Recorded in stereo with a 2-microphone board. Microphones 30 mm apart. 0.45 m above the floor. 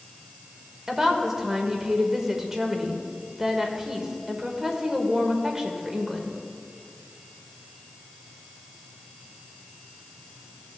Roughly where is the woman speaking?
Centre.